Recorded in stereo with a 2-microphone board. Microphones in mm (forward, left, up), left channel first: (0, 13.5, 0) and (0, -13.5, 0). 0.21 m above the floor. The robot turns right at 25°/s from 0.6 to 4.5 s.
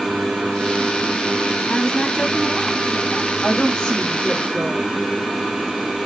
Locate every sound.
1.7 s a woman speaking: 30° left, 1.3 m; by 3.3 s 70° left, 1.3 m
3.4 s a woman speaking: 30° left (ahead or behind), 1.5 m; by 5.0 s 25° left (ahead or behind), 1.5 m